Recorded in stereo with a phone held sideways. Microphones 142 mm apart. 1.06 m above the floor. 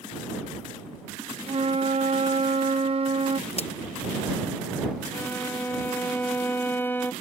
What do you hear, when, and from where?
1.5 s a flute: 45° right (ahead or behind)
3.5 s a crack: 45° left (ahead or behind)
5.1 s a violin: 15° left (ahead or behind)